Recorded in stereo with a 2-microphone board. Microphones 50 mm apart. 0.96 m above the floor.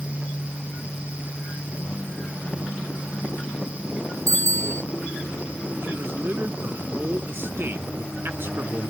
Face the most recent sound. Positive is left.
turn(degrees=-50)  # may be behind; listen again after turning